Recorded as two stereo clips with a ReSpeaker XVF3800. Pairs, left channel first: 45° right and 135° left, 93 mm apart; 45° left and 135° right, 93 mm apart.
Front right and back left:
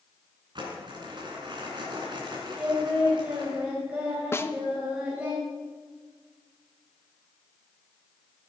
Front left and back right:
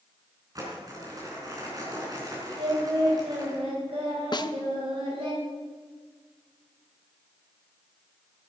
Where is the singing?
150° right, 4 m.